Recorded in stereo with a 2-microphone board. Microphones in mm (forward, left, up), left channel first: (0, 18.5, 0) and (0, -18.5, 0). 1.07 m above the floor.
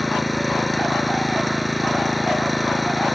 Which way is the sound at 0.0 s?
Centre (ahead or behind).